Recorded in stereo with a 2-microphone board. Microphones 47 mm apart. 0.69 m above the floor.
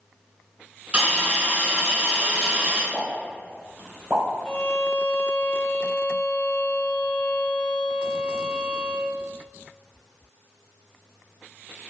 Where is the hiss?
30° right (ahead or behind), 1.9 m.